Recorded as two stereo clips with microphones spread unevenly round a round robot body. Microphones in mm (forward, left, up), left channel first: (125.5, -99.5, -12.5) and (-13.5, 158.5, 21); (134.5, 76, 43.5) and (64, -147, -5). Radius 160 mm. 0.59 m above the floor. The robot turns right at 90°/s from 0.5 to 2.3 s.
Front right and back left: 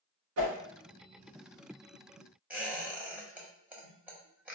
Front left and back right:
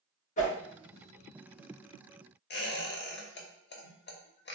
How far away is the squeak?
About 0.9 m.